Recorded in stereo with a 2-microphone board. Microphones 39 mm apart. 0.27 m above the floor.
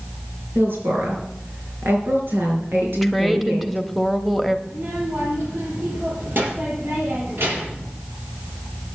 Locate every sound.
0.6 s a woman speaking: 70° right (ahead or behind), 4.5 m
3.0 s a woman speaking: centre (ahead or behind), 1.0 m
4.7 s a child speaking: 65° right (ahead or behind), 6.5 m